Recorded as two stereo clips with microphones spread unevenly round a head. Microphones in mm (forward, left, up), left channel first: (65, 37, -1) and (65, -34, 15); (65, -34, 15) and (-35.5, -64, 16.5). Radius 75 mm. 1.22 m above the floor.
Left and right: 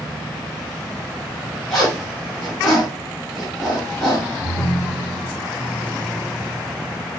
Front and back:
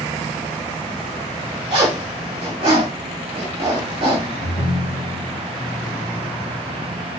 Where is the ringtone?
25° left, 1.1 m.